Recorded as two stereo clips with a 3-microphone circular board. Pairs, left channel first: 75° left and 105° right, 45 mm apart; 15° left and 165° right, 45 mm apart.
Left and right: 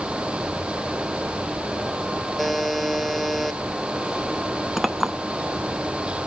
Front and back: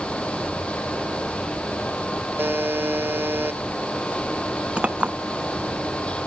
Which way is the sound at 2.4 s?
165° left.